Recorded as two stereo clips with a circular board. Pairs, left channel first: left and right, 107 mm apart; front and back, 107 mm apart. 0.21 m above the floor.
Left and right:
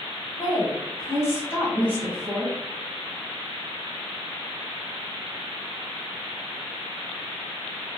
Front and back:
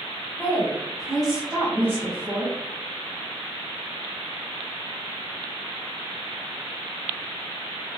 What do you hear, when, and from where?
0.4 s a woman speaking: 65° left, 1.4 m; by 2.5 s straight behind, 1.3 m